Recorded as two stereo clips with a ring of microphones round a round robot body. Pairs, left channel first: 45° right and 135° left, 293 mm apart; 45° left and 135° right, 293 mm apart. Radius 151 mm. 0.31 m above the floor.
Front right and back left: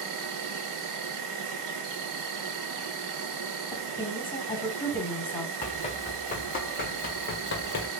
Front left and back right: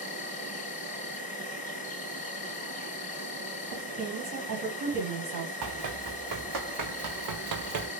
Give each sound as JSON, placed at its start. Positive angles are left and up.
{"t": 0.0, "sound": "an insect", "azimuth_deg": 110, "distance_m": 0.7}
{"t": 3.7, "sound": "a woman speaking", "azimuth_deg": -115, "distance_m": 2.0}
{"t": 5.6, "sound": "running footsteps", "azimuth_deg": -115, "distance_m": 1.8}